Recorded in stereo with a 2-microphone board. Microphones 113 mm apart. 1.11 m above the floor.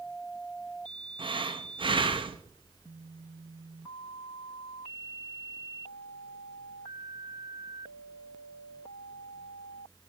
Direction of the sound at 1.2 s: 45° right (ahead or behind).